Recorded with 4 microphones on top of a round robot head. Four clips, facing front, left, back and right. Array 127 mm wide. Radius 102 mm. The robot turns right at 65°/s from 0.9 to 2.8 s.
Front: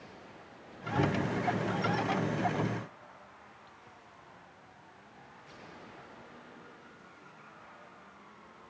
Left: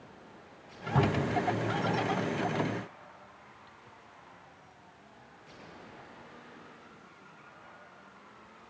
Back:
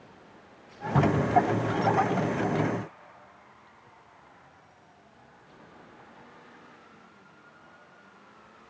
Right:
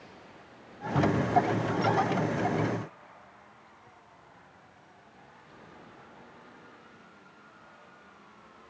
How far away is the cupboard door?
About 8 m.